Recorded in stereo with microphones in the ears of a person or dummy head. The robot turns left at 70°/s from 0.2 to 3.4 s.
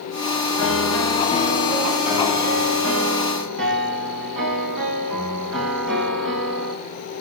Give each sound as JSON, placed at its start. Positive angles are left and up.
{"t": 0.6, "sound": "a piano", "azimuth_deg": 90, "distance_m": 3.5}